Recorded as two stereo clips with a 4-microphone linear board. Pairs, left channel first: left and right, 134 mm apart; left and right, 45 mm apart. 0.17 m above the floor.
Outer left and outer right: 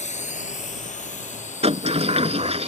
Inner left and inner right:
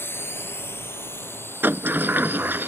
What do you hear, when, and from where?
0.0 s a drone: 60° left (ahead or behind)
1.6 s a sliding door: 50° right (ahead or behind)